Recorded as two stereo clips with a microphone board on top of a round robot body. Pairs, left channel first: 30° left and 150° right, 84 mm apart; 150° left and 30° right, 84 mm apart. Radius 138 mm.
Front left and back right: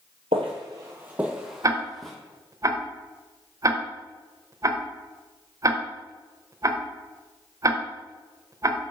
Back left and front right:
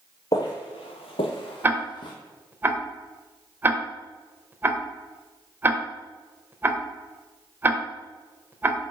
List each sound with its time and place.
0.3 s footsteps: 160° right, 0.6 m; by 2.1 s 115° left, 1.1 m
1.6 s ticking: 100° right, 0.8 m